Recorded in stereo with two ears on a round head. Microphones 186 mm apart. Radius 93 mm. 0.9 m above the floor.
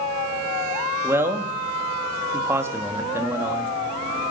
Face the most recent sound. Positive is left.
turn(degrees=-15)  # may be behind; listen again after turning